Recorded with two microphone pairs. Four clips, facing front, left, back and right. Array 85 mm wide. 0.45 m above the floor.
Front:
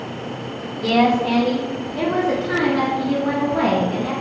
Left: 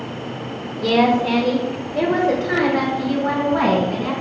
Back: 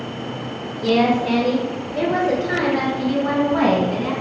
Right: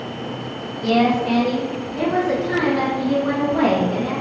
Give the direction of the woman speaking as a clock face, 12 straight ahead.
10 o'clock.